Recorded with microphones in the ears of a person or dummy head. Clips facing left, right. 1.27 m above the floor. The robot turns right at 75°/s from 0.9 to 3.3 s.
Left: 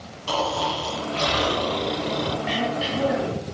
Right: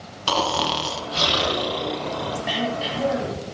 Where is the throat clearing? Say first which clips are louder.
Left 1 dB; 10° right, 2.5 m; by 3.4 s 55° left, 2.5 m.